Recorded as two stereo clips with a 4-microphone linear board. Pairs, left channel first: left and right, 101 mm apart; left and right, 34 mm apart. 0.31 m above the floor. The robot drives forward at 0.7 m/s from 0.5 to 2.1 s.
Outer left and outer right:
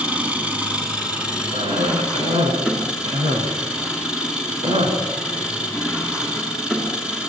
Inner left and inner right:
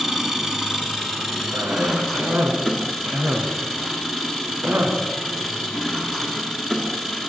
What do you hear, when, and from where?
0.0 s an engine running: 15° right (ahead or behind), 2.5 m; by 7.3 s 10° right (ahead or behind), 3.5 m
1.5 s a cough: 70° right (ahead or behind), 3 m